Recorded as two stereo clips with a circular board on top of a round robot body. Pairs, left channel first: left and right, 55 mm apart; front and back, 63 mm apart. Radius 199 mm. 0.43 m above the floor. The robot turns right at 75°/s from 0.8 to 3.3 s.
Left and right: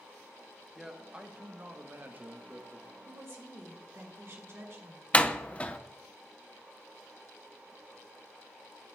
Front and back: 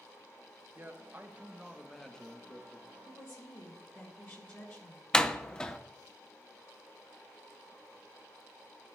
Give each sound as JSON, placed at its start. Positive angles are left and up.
{"t": 0.8, "sound": "a man speaking", "azimuth_deg": -170, "distance_m": 1.1}
{"t": 3.0, "sound": "a woman speaking", "azimuth_deg": -85, "distance_m": 2.5}
{"t": 5.1, "sound": "a door slam", "azimuth_deg": 65, "distance_m": 0.8}